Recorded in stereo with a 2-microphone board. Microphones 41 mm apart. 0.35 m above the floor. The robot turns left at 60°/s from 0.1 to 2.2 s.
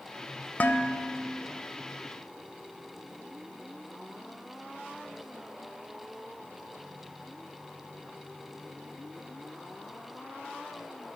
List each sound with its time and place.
0.6 s dishes clattering: 85° left, 0.9 m; by 1.4 s 35° left, 0.9 m